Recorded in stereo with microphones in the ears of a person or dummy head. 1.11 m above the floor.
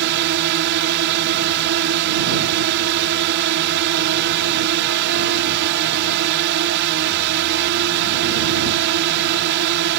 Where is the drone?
55° right (ahead or behind).